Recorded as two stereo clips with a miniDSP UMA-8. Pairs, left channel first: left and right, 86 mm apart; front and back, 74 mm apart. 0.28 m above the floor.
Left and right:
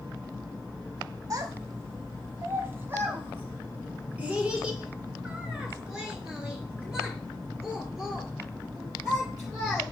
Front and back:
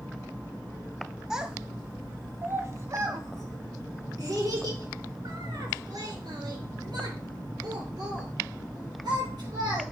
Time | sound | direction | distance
1.3 | a child speaking | 100° right | 1.3 m